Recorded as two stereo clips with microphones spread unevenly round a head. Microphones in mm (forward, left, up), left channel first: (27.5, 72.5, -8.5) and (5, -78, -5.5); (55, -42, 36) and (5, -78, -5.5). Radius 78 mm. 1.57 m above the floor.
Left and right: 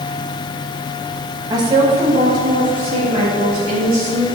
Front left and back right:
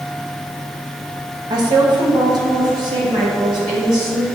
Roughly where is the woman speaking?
Behind.